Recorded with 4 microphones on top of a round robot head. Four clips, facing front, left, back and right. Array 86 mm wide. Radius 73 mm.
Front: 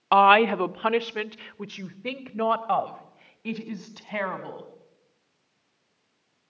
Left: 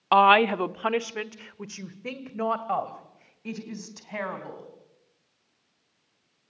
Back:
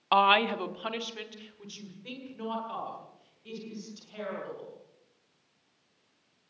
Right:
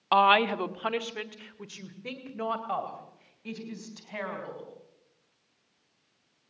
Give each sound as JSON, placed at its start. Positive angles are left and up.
{"t": 0.1, "sound": "a woman speaking", "azimuth_deg": 40, "distance_m": 0.8}